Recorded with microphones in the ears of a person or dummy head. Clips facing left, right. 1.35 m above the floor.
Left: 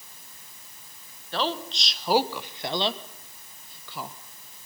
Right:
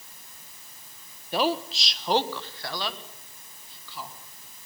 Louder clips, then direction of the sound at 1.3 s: Right 3 dB; 15° right (ahead or behind).